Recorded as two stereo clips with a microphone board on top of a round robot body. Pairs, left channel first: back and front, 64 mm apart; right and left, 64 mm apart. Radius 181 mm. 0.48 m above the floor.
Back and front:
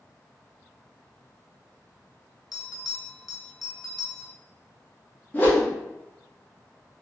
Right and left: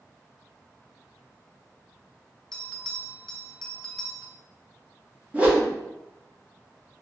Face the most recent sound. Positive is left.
turn(degrees=140)